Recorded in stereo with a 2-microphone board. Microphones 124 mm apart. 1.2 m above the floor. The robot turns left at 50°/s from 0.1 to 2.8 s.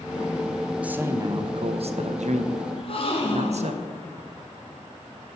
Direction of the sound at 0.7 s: 5° right.